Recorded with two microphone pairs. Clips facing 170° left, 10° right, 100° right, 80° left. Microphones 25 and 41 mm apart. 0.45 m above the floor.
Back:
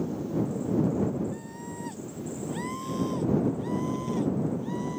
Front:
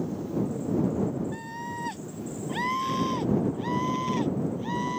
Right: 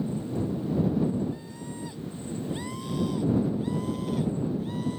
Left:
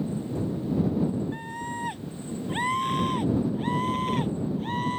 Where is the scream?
40° left.